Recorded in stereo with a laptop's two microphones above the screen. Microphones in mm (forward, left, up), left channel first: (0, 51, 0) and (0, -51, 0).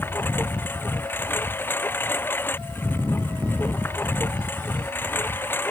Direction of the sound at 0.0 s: 20° left (ahead or behind).